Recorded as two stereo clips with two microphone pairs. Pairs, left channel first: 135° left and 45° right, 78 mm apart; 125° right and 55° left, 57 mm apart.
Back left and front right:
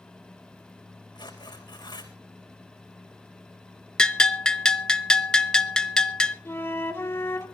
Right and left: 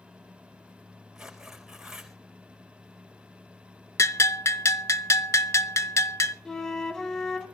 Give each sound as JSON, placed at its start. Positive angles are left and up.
{"t": 1.1, "sound": "tearing paper", "azimuth_deg": 140, "distance_m": 4.5}
{"t": 4.0, "sound": "a bell", "azimuth_deg": -145, "distance_m": 0.7}
{"t": 6.5, "sound": "a flute", "azimuth_deg": 165, "distance_m": 1.5}